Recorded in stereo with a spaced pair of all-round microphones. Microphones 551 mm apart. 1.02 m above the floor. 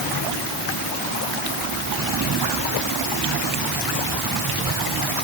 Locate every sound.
Only background noise.